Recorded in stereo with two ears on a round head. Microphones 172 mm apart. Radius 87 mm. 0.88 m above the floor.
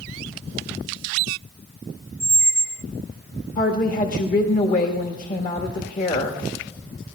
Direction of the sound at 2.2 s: 30° left (ahead or behind).